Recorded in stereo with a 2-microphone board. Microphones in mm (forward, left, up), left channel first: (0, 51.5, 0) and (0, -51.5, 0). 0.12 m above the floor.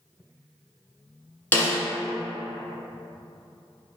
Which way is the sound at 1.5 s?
20° left (ahead or behind).